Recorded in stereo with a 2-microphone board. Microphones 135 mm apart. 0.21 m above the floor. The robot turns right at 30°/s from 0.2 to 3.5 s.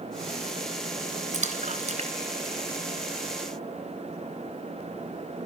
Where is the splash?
65° right (ahead or behind), 2 m; by 3.3 s 25° right (ahead or behind), 2 m.